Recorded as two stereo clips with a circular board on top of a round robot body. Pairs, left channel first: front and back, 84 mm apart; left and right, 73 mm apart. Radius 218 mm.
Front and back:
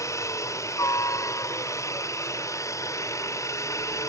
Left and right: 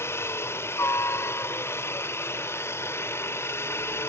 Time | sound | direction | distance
0.0 | a helicopter | 40° left | ?